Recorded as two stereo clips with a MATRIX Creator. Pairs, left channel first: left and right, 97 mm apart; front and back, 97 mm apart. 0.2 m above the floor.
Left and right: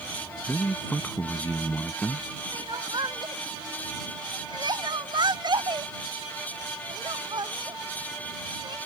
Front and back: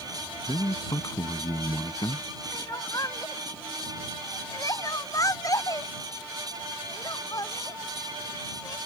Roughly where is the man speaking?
Ahead.